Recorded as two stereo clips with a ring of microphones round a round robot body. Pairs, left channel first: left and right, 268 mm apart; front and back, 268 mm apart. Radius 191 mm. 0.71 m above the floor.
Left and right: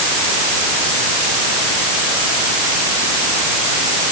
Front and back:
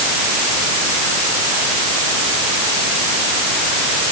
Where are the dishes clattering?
I don't hear dishes clattering.